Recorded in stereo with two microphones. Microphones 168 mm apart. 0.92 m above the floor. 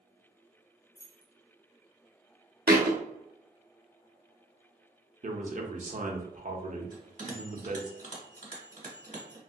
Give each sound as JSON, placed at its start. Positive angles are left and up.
{"t": 0.9, "sound": "keys jangling", "side_deg": 70, "distance_m": 1.2}
{"t": 2.7, "sound": "a thud", "side_deg": -70, "distance_m": 0.7}
{"t": 5.2, "sound": "a man speaking", "side_deg": -50, "distance_m": 0.7}
{"t": 6.9, "sound": "a bell", "side_deg": -50, "distance_m": 1.2}